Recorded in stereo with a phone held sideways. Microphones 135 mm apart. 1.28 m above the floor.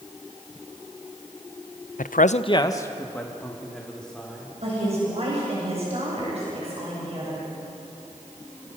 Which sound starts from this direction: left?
A man speaking, at 2.0 s.